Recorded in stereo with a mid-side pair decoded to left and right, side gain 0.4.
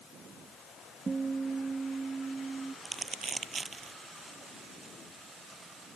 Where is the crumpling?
40° right.